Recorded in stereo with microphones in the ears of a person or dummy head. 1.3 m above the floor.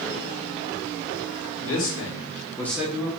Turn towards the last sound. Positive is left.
turn(degrees=-30)  # may be behind; listen again after turning